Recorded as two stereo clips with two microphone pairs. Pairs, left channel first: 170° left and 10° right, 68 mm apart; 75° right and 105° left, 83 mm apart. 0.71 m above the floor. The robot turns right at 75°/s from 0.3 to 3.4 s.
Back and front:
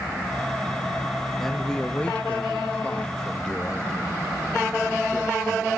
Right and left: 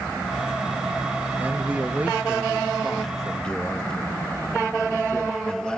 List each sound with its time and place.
1.4 s a man speaking: 85° left, 0.9 m; by 5.8 s 125° right, 0.9 m